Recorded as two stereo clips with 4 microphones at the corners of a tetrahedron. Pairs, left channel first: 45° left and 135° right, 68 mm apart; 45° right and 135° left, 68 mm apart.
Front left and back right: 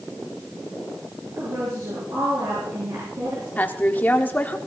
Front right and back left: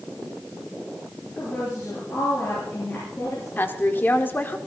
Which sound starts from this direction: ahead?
A woman speaking, at 3.6 s.